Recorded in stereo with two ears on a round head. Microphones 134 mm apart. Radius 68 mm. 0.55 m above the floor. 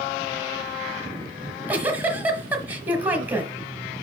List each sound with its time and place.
1.4 s a giggle: 10° right (ahead or behind), 1.2 m